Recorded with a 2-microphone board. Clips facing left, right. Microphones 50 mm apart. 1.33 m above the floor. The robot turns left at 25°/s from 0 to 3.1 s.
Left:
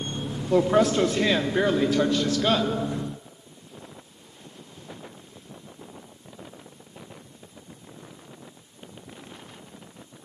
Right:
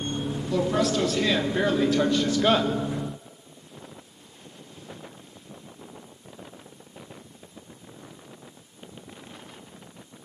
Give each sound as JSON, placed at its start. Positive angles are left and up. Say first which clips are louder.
{"t": 0.5, "sound": "a woman speaking", "louder": "left 5 dB", "azimuth_deg": 35, "distance_m": 3.5}